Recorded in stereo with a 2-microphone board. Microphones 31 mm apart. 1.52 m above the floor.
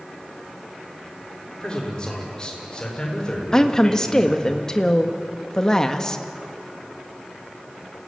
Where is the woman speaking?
20° left (ahead or behind), 1.8 m.